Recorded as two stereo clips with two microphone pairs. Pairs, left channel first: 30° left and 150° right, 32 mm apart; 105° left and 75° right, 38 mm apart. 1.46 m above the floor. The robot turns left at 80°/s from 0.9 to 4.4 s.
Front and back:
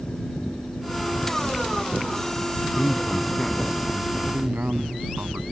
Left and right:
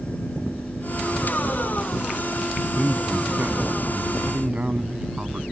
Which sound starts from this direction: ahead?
A man speaking, at 2.8 s.